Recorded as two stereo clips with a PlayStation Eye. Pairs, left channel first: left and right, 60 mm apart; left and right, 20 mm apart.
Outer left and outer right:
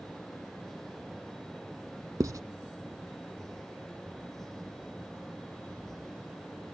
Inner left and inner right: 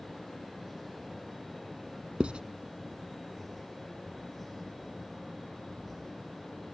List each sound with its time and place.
2.2 s writing: 70° right (ahead or behind)